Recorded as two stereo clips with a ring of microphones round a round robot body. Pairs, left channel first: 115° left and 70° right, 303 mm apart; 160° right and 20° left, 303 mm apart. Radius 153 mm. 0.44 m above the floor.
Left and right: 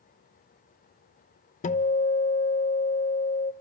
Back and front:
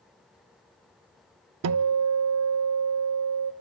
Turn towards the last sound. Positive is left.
turn(degrees=50)